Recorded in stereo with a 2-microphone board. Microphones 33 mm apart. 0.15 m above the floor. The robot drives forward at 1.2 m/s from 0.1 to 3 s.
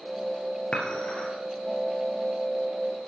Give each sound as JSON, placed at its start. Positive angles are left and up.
{"t": 0.7, "sound": "dishes clattering", "side_deg": 30, "distance_m": 1.8}